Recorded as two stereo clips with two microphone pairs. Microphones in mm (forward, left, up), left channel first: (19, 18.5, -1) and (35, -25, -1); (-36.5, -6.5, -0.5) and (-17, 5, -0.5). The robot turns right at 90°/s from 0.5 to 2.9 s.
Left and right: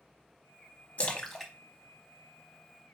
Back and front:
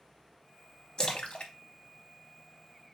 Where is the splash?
165° left, 0.7 m; by 1.5 s 150° right, 0.7 m.